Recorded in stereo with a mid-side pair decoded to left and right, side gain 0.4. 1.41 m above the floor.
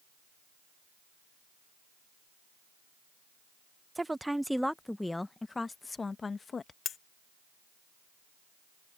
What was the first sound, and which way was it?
A woman speaking, 15° right.